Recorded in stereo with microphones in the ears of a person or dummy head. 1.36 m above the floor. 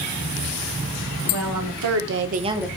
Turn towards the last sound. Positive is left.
turn(degrees=0)  # may be behind; listen again after turning